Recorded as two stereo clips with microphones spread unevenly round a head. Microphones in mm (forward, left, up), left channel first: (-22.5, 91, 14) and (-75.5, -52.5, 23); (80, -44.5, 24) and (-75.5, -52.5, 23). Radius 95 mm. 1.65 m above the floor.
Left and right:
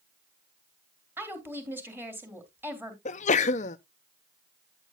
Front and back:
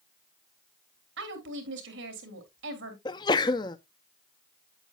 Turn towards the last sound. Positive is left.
turn(degrees=55)